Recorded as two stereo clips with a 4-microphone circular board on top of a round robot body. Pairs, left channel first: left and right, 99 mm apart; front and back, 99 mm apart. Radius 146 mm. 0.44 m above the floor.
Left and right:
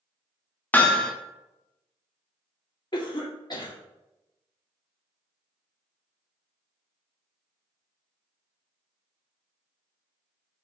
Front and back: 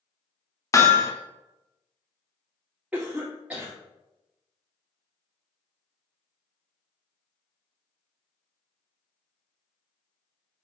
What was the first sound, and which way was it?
Hammering, 30° left.